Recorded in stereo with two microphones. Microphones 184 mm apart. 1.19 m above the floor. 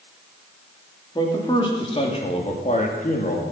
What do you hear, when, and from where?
1.1 s a man speaking: 25° left (ahead or behind), 2.5 m; by 3.4 s 50° left (ahead or behind), 2.5 m